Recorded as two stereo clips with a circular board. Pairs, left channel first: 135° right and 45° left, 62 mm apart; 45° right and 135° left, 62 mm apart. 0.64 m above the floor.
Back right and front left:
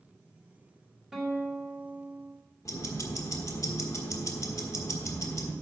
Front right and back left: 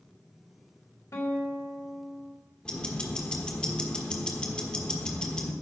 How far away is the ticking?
About 1.3 m.